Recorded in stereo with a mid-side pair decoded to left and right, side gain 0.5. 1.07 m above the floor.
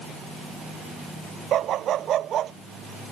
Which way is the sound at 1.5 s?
60° right.